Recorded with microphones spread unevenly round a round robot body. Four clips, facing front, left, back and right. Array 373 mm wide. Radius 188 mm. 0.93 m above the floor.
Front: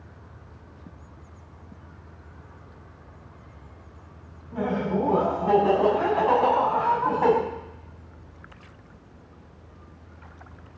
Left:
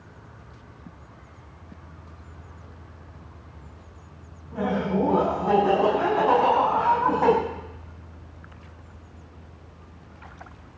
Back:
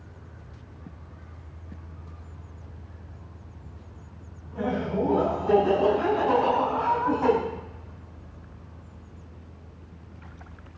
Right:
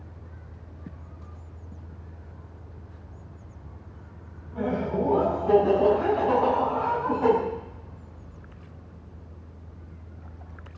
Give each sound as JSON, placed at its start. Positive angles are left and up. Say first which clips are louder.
{"t": 4.5, "sound": "laughter", "louder": "left 2 dB, front 2 dB", "azimuth_deg": 40, "distance_m": 9.0}